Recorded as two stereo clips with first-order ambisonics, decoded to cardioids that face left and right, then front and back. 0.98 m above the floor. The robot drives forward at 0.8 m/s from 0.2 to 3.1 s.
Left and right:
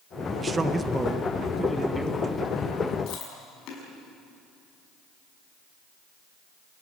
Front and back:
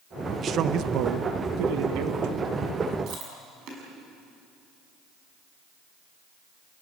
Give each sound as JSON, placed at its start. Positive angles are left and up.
{"t": 0.4, "sound": "a man speaking", "azimuth_deg": -150, "distance_m": 0.8}
{"t": 3.1, "sound": "chewing", "azimuth_deg": 135, "distance_m": 6.0}